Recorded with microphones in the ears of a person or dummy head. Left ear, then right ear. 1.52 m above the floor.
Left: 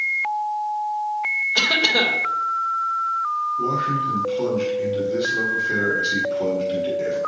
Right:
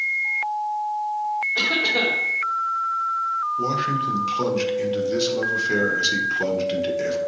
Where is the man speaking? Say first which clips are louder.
Left 1 dB; 45° right (ahead or behind), 1.5 m.